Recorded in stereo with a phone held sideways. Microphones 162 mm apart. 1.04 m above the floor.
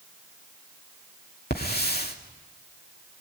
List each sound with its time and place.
1.5 s a hiss: 80° left, 2.5 m